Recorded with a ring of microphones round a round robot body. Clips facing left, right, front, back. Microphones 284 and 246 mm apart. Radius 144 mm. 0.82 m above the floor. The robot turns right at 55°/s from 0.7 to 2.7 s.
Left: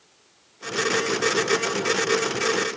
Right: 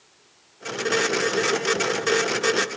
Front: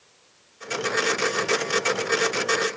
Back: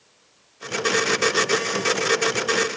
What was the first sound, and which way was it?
Only background noise.